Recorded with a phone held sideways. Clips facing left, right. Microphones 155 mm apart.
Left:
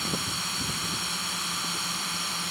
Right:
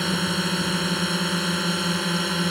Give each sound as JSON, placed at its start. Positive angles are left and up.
{"t": 0.0, "sound": "a drone", "side_deg": -65}